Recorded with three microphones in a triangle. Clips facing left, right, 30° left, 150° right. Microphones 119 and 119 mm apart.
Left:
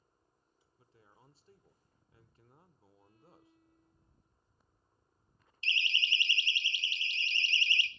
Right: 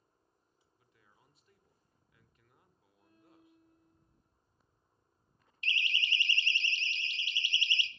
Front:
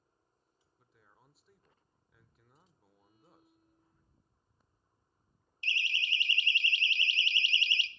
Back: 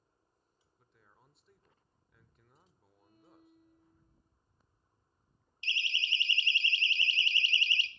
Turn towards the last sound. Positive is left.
turn(degrees=-145)